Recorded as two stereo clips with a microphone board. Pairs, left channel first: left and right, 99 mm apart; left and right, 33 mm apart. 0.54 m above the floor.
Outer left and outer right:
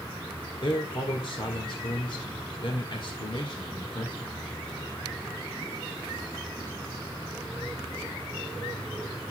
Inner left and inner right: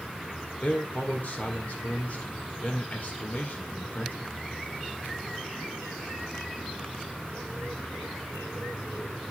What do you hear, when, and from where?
0.6 s a man speaking: 55° left (ahead or behind), 1.9 m